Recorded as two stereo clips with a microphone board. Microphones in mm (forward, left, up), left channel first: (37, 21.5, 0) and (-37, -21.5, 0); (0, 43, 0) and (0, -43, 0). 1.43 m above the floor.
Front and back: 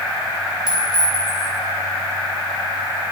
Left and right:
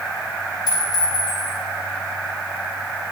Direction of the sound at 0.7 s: 130° left.